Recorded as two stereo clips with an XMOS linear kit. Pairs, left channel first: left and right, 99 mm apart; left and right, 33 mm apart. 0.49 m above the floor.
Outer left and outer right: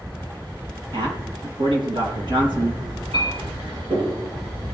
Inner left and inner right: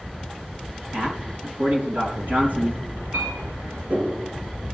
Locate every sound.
0.9 s a man speaking: 70° right (ahead or behind), 4 m
3.1 s a clink: 85° right, 7 m